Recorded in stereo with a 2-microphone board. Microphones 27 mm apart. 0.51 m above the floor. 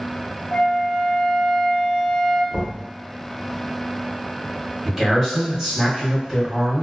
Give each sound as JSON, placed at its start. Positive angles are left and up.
{"t": 0.5, "sound": "a flute", "side_deg": 40, "distance_m": 0.5}
{"t": 2.5, "sound": "knocking", "side_deg": -50, "distance_m": 1.0}
{"t": 4.8, "sound": "a man speaking", "side_deg": -10, "distance_m": 1.6}